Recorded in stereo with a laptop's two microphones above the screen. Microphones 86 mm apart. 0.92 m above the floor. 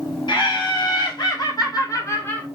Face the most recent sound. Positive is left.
turn(degrees=15)  # may be behind; listen again after turning